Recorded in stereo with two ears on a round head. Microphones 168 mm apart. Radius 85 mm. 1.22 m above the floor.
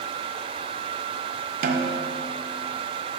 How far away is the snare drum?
About 0.6 m.